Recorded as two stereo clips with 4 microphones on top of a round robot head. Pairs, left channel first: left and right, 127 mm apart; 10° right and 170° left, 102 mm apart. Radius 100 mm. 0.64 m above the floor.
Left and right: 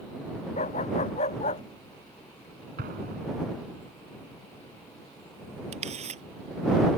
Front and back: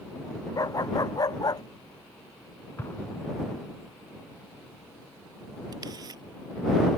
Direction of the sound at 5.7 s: 125° right.